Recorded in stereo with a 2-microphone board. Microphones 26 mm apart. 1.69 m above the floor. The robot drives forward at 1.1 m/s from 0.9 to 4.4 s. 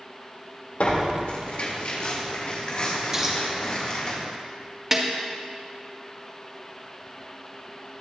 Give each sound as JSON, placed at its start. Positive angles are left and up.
{"t": 0.8, "sound": "tearing paper", "side_deg": 65, "distance_m": 2.5}
{"t": 3.1, "sound": "a dropped coin", "side_deg": -20, "distance_m": 3.5}
{"t": 4.9, "sound": "a snare drum", "side_deg": -20, "distance_m": 1.9}